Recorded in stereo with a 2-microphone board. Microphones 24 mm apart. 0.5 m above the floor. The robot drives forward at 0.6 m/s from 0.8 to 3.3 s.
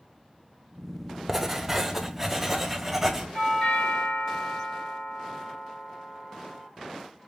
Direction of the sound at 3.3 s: 65° left (ahead or behind).